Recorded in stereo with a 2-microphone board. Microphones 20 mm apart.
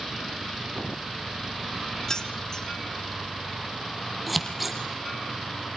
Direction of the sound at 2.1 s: 30° left (ahead or behind).